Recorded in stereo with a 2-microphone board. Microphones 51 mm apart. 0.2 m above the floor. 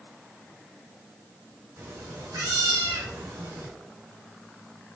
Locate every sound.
1.8 s a cat meowing: 75° right (ahead or behind), 3.5 m